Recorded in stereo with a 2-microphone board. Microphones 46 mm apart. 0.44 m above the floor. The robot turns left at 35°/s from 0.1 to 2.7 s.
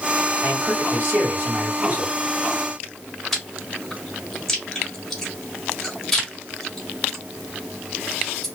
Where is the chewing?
10° left (ahead or behind), 1.6 m.